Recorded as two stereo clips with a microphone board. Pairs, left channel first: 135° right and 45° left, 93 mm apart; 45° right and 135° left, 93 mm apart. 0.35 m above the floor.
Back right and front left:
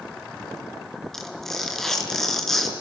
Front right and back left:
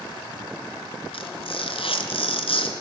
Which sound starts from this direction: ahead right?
Tearing paper, at 1.1 s.